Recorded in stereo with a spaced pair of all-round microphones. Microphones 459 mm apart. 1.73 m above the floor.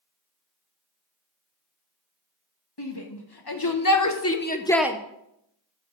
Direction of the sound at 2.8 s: 60° left (ahead or behind).